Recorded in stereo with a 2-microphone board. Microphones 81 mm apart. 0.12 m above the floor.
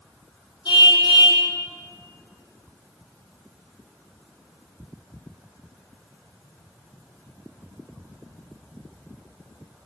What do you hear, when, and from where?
0.7 s a car horn: 75° left (ahead or behind), 2.5 m